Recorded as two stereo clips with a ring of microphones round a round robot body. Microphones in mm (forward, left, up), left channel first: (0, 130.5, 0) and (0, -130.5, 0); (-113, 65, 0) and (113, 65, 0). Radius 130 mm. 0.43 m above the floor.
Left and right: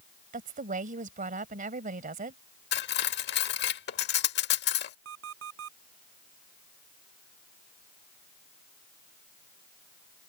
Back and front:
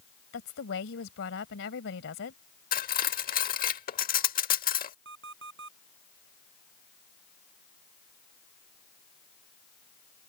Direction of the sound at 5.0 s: 50° right.